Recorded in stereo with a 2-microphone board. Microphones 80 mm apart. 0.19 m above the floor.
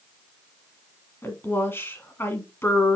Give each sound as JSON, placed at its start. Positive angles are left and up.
{"t": 1.2, "sound": "a woman speaking", "side_deg": 25, "distance_m": 1.7}